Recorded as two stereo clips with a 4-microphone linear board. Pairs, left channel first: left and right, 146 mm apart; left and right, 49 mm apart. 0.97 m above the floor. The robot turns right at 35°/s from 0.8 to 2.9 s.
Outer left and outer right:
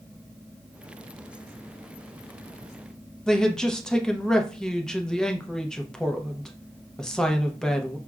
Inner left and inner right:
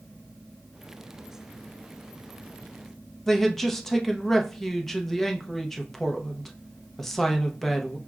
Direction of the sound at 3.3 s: 5° left (ahead or behind).